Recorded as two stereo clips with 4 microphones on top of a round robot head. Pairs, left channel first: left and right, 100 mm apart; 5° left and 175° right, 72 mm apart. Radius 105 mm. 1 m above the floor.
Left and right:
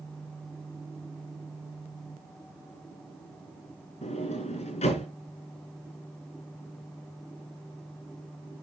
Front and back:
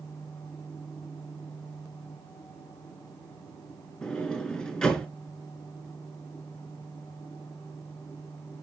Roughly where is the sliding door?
Left.